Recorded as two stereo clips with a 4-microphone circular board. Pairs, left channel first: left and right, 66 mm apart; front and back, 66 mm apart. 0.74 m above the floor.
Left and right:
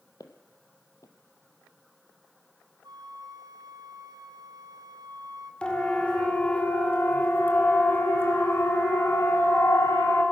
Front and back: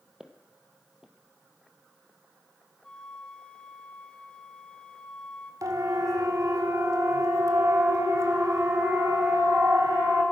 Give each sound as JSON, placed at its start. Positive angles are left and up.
{"t": 0.2, "sound": "footsteps", "azimuth_deg": 105, "distance_m": 1.7}
{"t": 2.8, "sound": "a flute", "azimuth_deg": -75, "distance_m": 4.0}
{"t": 5.6, "sound": "a siren", "azimuth_deg": 165, "distance_m": 2.5}